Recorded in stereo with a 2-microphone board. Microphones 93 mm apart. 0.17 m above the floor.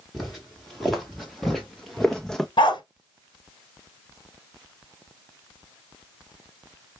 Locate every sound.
0.1 s footsteps: centre (ahead or behind), 2 m; by 2.5 s 5° left (ahead or behind), 0.7 m
2.6 s a dog barking: 65° left (ahead or behind), 1.0 m